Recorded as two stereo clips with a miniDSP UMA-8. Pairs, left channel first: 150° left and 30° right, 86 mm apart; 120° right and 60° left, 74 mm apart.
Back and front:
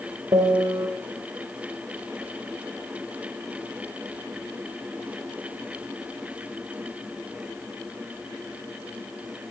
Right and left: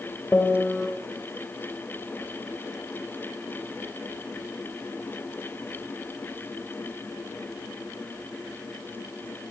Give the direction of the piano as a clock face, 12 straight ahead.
2 o'clock.